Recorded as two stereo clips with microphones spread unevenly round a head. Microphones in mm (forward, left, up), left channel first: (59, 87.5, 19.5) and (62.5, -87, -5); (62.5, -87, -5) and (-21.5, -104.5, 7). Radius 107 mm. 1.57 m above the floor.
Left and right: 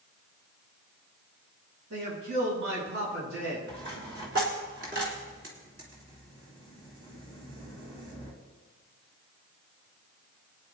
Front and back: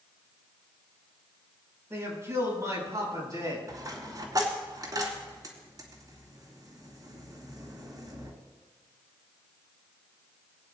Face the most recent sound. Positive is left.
turn(degrees=-135)